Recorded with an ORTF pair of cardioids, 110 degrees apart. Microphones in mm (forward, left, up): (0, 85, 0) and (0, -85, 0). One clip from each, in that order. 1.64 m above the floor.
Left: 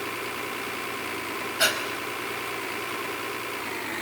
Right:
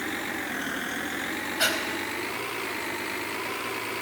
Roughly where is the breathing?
Ahead.